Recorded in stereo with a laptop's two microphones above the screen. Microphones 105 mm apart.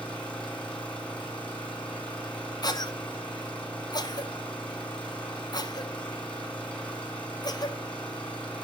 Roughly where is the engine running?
Centre.